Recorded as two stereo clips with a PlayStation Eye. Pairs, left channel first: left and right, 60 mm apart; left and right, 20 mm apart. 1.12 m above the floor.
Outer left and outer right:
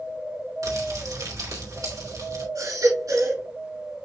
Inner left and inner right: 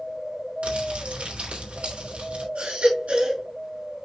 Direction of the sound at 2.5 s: 85° right.